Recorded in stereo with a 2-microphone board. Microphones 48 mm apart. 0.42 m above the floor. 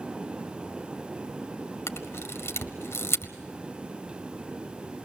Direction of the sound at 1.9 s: 65° left (ahead or behind).